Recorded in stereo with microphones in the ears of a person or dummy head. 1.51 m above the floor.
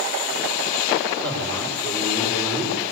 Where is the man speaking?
10° left (ahead or behind), 7 m.